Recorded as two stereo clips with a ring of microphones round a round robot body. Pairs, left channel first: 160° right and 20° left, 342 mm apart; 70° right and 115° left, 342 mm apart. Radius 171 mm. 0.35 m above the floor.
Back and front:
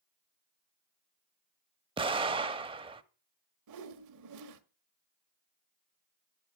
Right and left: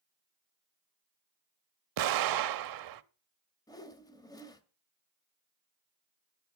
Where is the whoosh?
10° left, 1.4 m.